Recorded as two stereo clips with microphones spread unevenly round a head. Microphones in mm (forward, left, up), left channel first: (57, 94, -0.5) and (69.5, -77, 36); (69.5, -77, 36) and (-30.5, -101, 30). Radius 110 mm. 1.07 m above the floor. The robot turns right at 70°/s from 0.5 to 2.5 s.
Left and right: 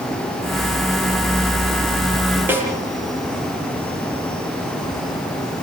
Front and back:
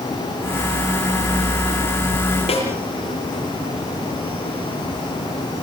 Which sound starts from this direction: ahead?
A snare drum, at 2.5 s.